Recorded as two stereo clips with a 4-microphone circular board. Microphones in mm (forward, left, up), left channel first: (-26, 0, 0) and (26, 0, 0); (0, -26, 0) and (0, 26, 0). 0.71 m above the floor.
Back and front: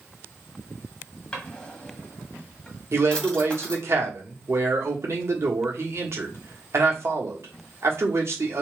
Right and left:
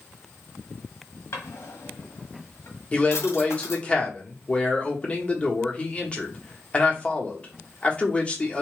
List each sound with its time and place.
1.3 s a drawer: 110° right, 1.2 m
2.9 s a man speaking: 25° right, 1.2 m